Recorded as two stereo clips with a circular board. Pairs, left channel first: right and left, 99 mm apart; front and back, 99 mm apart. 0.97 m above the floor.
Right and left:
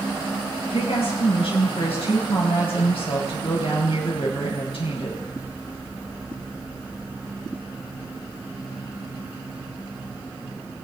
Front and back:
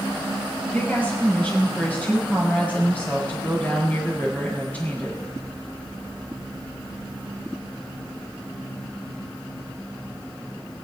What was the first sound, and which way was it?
A woman speaking, 75° right.